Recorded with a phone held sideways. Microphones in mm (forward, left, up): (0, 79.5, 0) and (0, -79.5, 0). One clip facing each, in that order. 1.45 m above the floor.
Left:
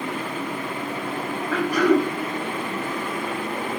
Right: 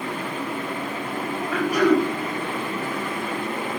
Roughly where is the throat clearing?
Centre.